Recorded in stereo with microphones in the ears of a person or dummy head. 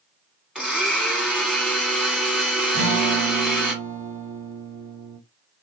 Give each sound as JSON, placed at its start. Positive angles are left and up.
{"t": 0.6, "sound": "a blender", "side_deg": 0, "distance_m": 1.6}
{"t": 2.7, "sound": "a guitar", "side_deg": -70, "distance_m": 1.4}